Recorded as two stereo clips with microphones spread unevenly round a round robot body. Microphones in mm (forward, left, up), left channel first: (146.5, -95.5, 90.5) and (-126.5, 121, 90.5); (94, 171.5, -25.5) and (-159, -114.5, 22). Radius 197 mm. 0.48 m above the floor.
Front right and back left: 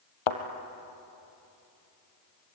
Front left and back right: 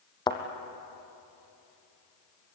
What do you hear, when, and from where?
0.3 s a thud: 35° right, 1.9 m